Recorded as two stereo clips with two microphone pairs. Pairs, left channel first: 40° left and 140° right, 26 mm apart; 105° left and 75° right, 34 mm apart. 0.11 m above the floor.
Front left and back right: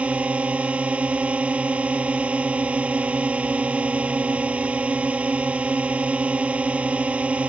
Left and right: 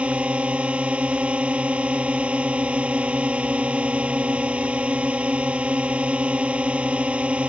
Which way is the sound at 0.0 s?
120° right.